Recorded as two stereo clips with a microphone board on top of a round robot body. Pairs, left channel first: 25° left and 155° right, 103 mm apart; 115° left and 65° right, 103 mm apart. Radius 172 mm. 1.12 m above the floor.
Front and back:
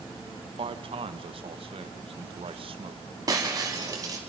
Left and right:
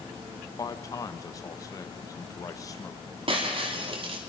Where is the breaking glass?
100° right, 2 m.